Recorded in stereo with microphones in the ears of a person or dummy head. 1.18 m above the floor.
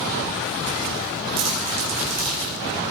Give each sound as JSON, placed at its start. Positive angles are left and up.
{"t": 1.4, "sound": "crumpling", "side_deg": -50, "distance_m": 3.5}